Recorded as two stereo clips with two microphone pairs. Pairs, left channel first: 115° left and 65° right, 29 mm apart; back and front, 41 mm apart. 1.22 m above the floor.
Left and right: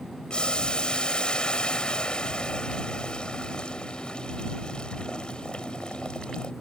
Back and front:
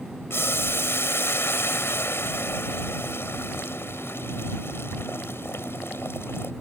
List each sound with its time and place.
0.3 s boiling: 170° left